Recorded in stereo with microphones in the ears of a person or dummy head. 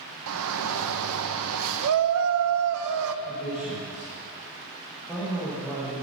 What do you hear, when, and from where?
0.3 s a shout: 70° right (ahead or behind), 1.3 m
3.2 s a man speaking: 5° left (ahead or behind), 7 m